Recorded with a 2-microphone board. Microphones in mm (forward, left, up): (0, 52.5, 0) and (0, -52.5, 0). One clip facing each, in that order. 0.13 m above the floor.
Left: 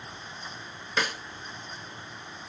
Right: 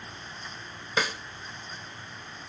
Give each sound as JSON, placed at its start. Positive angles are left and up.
{"t": 1.0, "sound": "a snare drum", "side_deg": -10, "distance_m": 1.3}